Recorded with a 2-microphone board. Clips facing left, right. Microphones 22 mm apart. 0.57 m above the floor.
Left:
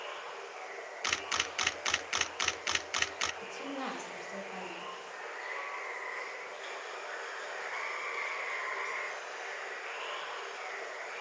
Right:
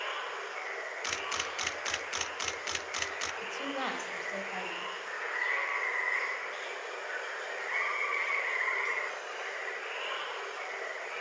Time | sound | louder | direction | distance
0.0 | running water | right 5 dB | 85° right | 2.5 m
1.0 | a camera shutter | left 3 dB | 25° left (ahead or behind) | 0.8 m
3.4 | a woman speaking | right 4 dB | 40° right (ahead or behind) | 3.5 m